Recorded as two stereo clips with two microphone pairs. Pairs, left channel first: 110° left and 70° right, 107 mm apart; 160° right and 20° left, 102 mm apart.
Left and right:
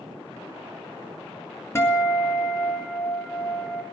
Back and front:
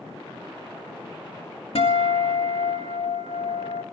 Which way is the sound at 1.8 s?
175° left.